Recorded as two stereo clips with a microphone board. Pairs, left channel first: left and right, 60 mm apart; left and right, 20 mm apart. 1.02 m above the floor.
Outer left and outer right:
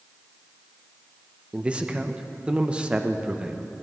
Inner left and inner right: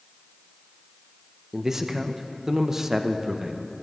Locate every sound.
1.5 s a man speaking: 20° right (ahead or behind), 0.6 m